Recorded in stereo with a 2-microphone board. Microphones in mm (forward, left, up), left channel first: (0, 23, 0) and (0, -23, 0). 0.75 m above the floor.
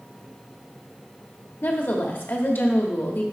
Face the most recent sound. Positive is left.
turn(degrees=45)  # may be behind; listen again after turning